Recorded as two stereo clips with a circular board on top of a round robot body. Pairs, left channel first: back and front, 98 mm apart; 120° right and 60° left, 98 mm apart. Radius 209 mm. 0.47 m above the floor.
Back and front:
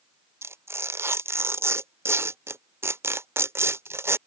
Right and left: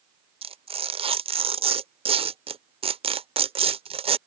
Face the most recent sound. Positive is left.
turn(degrees=65)